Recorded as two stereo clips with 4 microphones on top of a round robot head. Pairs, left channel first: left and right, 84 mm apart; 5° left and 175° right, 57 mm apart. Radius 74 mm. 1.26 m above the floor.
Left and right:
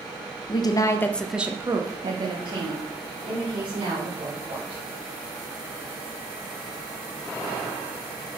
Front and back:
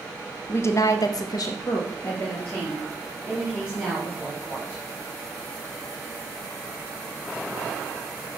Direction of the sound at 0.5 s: 50° left.